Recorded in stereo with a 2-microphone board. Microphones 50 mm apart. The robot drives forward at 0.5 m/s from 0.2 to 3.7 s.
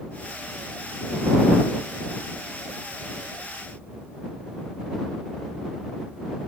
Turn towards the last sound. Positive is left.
No sound to turn to.